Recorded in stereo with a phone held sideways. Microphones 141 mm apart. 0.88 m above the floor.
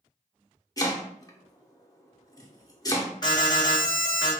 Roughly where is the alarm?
Left.